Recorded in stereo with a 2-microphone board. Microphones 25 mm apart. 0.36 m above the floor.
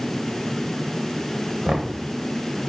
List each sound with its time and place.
1.6 s knocking: 45° right (ahead or behind), 0.9 m